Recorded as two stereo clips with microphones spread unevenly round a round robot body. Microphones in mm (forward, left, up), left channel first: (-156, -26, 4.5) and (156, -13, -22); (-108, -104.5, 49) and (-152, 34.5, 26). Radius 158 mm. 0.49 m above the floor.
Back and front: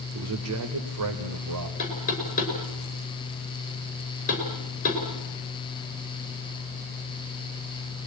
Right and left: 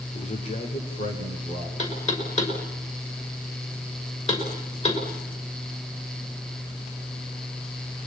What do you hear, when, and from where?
0.1 s a man speaking: 25° right, 1.7 m; by 1.7 s 5° right, 2.5 m
1.8 s knocking: 115° right, 6 m